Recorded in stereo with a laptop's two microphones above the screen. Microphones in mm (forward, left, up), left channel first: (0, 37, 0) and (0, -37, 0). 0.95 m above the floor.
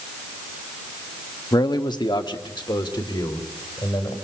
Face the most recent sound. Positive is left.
turn(degrees=75)  # may be behind; listen again after turning